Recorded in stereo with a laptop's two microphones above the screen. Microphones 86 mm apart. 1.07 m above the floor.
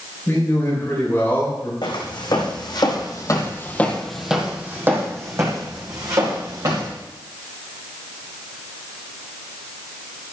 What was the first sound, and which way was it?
A man speaking, 30° left (ahead or behind).